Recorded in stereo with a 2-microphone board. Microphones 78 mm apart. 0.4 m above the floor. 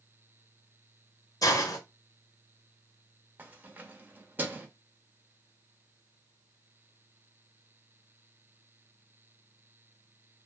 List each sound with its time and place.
1.4 s a hiss: 50° left (ahead or behind), 0.5 m
3.4 s keys jangling: 25° right (ahead or behind), 0.6 m